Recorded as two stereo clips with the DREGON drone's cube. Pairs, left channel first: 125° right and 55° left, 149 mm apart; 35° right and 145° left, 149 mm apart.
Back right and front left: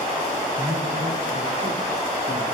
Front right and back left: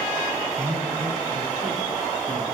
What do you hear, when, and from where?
0.6 s a man speaking: 105° left, 6 m; by 2.4 s 95° left, 4 m